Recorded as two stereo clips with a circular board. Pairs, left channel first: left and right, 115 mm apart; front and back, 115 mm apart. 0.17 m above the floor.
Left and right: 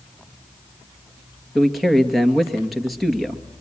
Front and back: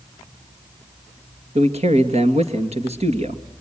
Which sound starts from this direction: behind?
A man speaking, at 1.6 s.